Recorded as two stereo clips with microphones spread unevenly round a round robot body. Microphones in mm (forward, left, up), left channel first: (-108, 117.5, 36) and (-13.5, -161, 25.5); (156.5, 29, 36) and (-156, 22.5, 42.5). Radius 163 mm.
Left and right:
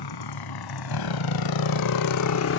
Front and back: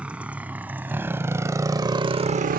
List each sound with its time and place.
0.0 s a motorcycle: 95° left; by 2.6 s 135° left